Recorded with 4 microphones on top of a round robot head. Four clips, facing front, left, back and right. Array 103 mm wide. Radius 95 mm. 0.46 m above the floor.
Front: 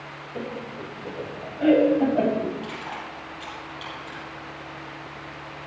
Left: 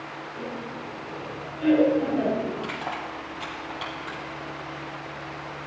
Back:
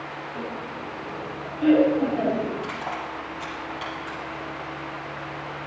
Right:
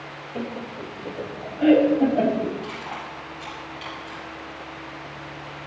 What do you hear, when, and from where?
0.3 s laughter: 60° right, 3 m; by 2.6 s 35° right, 4.5 m
2.6 s crushing: 115° left, 8 m